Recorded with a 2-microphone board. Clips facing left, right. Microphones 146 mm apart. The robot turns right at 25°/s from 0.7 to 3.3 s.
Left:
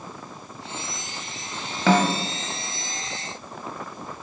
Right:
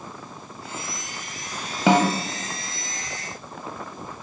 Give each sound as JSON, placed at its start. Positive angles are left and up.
{"t": 1.9, "sound": "a snare drum", "side_deg": -15, "distance_m": 0.9}